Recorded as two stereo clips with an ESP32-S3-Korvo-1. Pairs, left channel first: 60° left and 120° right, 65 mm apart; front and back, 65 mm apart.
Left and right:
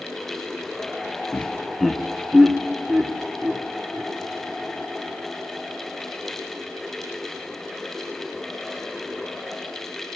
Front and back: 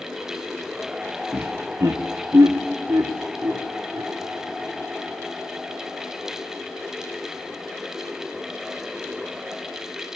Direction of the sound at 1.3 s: 125° left.